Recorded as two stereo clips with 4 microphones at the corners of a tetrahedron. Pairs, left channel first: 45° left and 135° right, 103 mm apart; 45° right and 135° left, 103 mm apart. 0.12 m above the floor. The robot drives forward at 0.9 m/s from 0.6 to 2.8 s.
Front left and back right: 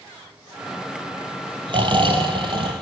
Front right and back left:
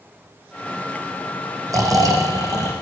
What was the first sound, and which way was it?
Snoring, 170° right.